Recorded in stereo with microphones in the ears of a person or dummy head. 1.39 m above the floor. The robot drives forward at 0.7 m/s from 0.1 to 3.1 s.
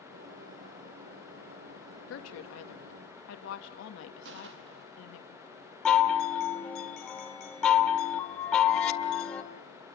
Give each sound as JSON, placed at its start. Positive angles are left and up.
{"t": 2.1, "sound": "a woman speaking", "side_deg": 80, "distance_m": 2.0}
{"t": 4.2, "sound": "a gunshot", "side_deg": -70, "distance_m": 1.5}
{"t": 5.8, "sound": "a chime", "side_deg": 5, "distance_m": 1.9}